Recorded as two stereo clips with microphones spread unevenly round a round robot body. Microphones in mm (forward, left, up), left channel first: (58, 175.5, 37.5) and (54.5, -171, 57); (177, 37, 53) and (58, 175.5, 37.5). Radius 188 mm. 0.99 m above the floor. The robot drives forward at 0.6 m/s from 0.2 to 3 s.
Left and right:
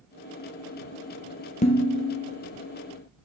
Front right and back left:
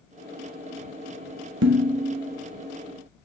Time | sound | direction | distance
1.6 | dishes clattering | 160° left | 0.8 m